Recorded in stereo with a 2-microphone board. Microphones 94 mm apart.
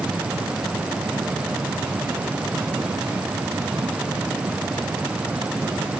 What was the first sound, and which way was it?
Only background noise.